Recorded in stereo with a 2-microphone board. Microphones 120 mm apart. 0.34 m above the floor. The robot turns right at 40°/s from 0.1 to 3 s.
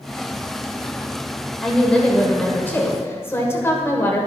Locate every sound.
1.6 s a woman speaking: 5° left (ahead or behind), 1.2 m; by 4.3 s 20° left (ahead or behind), 1.2 m